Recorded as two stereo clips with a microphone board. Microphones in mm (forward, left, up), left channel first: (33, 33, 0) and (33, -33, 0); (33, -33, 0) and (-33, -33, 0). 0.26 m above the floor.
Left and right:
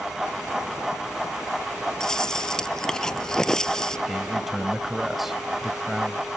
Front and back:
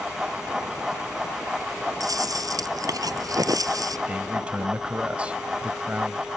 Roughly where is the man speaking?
Behind.